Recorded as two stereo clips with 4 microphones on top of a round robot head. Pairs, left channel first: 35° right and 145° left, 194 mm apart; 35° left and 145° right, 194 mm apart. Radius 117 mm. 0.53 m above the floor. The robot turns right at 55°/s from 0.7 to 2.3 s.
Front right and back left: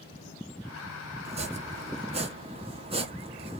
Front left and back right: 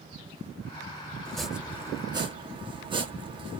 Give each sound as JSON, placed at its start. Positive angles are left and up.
{"t": 1.2, "sound": "chopping", "azimuth_deg": 115, "distance_m": 0.9}